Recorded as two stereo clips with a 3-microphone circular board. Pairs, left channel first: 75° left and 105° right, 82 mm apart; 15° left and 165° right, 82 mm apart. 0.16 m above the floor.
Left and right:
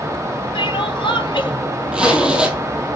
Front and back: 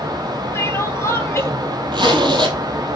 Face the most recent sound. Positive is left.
turn(degrees=175)